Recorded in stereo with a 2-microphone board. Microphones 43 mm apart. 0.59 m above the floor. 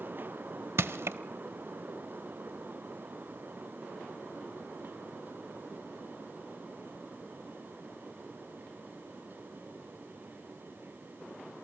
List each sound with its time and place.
0.8 s crushing: 70° right (ahead or behind), 0.6 m